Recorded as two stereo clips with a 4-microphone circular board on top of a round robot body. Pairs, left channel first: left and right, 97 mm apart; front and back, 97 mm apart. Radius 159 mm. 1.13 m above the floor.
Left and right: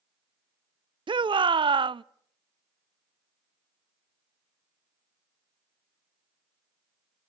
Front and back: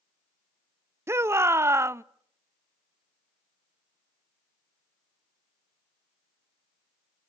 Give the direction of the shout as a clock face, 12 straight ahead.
4 o'clock.